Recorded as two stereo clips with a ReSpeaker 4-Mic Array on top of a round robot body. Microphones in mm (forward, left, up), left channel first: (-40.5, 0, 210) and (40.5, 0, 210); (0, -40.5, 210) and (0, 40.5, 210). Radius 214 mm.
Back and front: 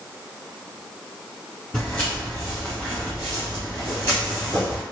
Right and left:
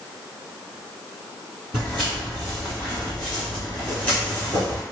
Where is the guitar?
No guitar in this recording.